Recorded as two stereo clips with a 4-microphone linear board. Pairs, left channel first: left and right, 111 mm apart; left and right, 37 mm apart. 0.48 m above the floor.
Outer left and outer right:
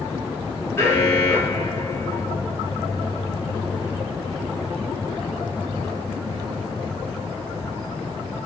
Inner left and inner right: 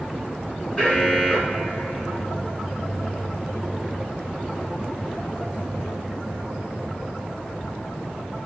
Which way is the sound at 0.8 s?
25° left (ahead or behind).